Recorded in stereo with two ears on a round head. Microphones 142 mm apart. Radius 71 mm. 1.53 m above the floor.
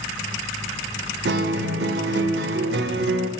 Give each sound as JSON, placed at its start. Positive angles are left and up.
{"t": 1.2, "sound": "a guitar", "side_deg": -75, "distance_m": 0.7}